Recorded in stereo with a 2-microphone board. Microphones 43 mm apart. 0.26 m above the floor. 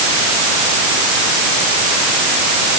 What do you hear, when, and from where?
Only background noise.